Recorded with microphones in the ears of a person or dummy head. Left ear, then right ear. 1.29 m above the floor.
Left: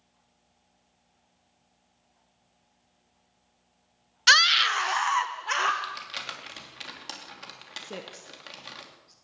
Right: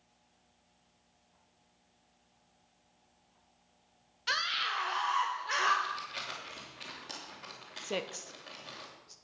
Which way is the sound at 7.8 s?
30° right (ahead or behind).